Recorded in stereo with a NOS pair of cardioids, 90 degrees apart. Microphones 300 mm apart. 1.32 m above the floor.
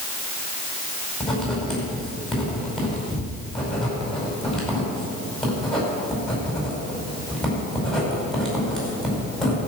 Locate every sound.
1.2 s writing: straight ahead, 5 m